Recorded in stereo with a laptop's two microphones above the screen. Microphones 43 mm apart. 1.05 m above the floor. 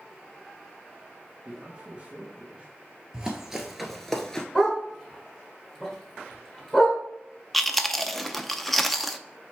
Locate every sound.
1.4 s a man speaking: 30° right (ahead or behind), 1.3 m
3.1 s running footsteps: 20° right (ahead or behind), 1.2 m; by 4.5 s 15° left (ahead or behind), 1.0 m
4.5 s a dog barking: 5° left (ahead or behind), 1.4 m
7.5 s chewing: 5° left (ahead or behind), 0.6 m